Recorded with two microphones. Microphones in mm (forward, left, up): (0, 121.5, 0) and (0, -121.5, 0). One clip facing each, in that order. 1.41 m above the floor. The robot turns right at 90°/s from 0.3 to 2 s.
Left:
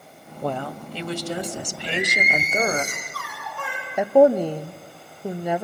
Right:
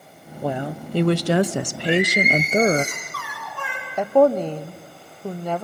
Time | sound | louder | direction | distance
0.4 | a woman speaking | right 2 dB | straight behind | 0.5 m
1.9 | singing | right 8 dB | 85° right | 4.5 m
4.0 | a woman speaking | left 1 dB | 10° left (ahead or behind) | 0.7 m